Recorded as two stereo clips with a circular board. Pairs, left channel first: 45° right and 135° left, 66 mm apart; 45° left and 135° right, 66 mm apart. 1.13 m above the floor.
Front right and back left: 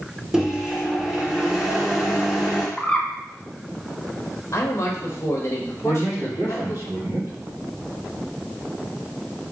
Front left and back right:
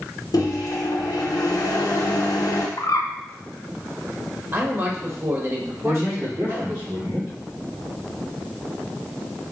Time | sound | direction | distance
0.3 | a microwave | 50° left | 0.7 m
2.8 | a bird | 30° left | 0.6 m
4.5 | a man speaking | 90° right | 1.0 m
5.8 | a man speaking | 175° left | 1.8 m